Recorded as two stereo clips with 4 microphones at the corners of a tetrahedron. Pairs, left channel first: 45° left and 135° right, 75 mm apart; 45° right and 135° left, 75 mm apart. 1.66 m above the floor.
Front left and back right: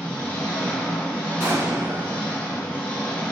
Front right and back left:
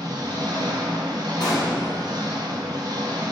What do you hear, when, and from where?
0.0 s an engine running: 120° left, 1.5 m
1.4 s an explosion: 70° right, 2.5 m